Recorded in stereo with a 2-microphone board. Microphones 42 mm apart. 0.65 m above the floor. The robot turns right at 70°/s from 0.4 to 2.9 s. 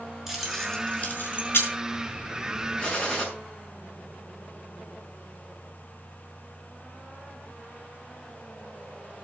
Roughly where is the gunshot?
Left.